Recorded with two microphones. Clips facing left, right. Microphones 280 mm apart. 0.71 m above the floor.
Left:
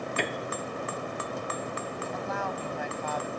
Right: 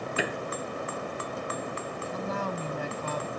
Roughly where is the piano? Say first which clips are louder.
Right 1 dB; centre.